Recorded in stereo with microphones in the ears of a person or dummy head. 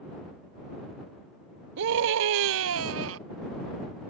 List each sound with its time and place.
1.8 s a scream: 65° right (ahead or behind); by 3.2 s 70° right (ahead or behind)